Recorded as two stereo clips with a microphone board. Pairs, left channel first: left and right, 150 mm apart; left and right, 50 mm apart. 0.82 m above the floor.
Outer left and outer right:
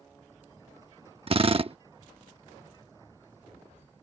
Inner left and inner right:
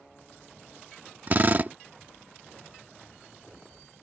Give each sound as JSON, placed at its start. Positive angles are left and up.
{"t": 1.3, "sound": "a drill", "side_deg": -40}